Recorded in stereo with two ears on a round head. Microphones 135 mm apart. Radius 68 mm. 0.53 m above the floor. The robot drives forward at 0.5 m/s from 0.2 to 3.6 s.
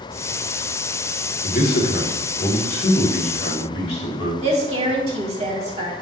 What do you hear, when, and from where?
1.4 s a man speaking: 60° left (ahead or behind), 2.0 m; by 4.3 s 40° left (ahead or behind), 2.5 m
4.4 s a woman speaking: 40° right (ahead or behind), 1.7 m